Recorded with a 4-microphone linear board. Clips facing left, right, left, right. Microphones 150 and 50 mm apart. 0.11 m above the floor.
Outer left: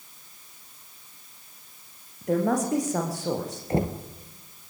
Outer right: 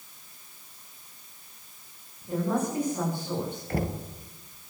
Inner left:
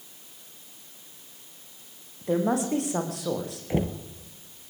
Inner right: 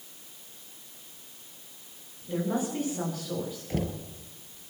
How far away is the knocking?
About 2 m.